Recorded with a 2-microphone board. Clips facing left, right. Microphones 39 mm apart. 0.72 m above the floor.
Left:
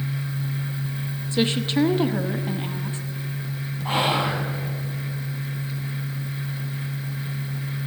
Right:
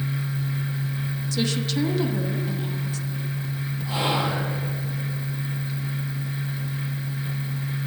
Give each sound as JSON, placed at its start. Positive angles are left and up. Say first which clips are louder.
{"t": 1.3, "sound": "a woman speaking", "louder": "left 4 dB", "side_deg": 30, "distance_m": 0.9}
{"t": 3.9, "sound": "whispering", "louder": "left 3 dB", "side_deg": 55, "distance_m": 5.5}